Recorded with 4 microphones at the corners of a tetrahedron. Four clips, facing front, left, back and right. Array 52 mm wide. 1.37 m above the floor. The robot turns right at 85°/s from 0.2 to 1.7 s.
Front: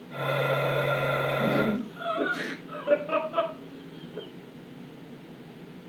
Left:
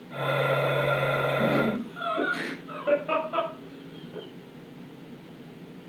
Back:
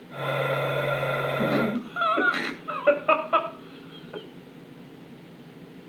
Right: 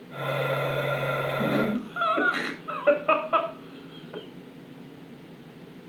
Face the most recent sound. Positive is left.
turn(degrees=-145)